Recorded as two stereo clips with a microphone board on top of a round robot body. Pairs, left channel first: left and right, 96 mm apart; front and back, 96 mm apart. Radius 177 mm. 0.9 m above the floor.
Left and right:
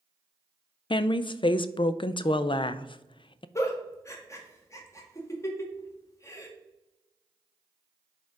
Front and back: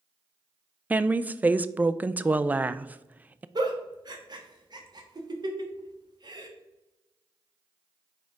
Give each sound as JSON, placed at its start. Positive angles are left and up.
{"t": 0.9, "sound": "a woman speaking", "azimuth_deg": 110, "distance_m": 0.5}
{"t": 3.5, "sound": "a giggle", "azimuth_deg": 145, "distance_m": 1.5}